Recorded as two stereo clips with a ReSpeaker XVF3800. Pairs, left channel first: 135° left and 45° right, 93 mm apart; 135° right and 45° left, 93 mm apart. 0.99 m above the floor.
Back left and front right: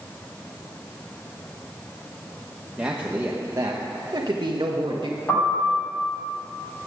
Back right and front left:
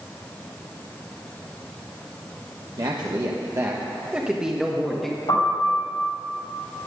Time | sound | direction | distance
2.8 | a man speaking | 30° left | 1.2 m
5.3 | a piano | 160° right | 6 m